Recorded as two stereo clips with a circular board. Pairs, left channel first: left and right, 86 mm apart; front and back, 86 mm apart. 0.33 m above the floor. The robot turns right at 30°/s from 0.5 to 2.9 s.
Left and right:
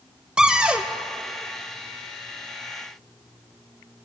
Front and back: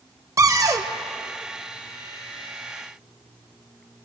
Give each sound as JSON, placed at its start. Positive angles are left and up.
{"t": 0.4, "sound": "a cupboard door", "azimuth_deg": -165, "distance_m": 0.5}